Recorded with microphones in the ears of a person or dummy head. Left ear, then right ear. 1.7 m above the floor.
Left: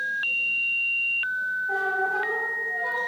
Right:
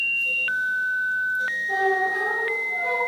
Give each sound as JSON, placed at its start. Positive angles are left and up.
{"t": 1.7, "sound": "a squeak", "side_deg": 15, "distance_m": 1.0}